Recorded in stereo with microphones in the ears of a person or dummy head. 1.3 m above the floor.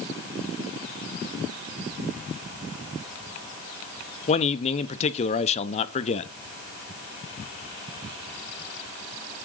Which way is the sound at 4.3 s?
35° left (ahead or behind).